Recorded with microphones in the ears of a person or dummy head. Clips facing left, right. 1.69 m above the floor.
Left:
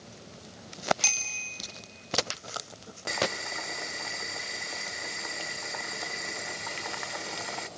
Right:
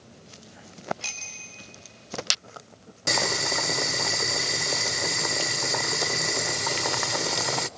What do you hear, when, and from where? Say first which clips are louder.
1.0 s a bicycle bell: left 2 dB; 80° left, 6.5 m
3.1 s boiling: right 4 dB; 60° right (ahead or behind), 0.5 m